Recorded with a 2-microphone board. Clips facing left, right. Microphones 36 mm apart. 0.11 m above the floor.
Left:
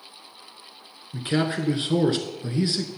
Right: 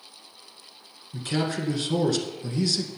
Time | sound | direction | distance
1.1 | a man speaking | 25° left (ahead or behind) | 1.3 m